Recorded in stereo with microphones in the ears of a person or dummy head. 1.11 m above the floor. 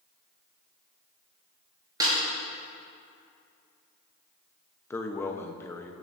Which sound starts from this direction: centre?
A man speaking, at 4.9 s.